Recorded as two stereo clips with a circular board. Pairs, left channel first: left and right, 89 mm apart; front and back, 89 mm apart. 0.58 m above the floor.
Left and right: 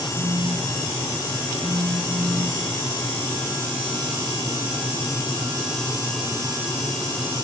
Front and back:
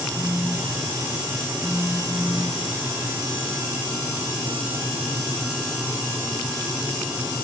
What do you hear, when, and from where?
0.1 s a phone buzzing: 95° right